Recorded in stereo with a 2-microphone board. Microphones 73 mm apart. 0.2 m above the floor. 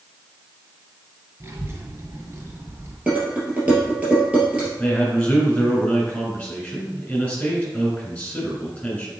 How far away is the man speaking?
About 3 m.